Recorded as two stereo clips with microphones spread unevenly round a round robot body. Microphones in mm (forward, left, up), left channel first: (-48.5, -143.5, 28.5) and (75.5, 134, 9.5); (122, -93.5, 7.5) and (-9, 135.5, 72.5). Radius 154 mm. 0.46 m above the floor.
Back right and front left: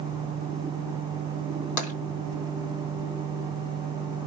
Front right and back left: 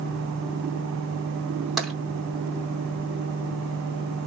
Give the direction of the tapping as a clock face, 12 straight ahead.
5 o'clock.